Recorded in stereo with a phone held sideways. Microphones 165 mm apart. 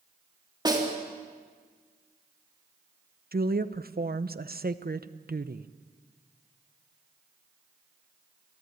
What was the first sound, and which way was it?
A snare drum, 25° right (ahead or behind).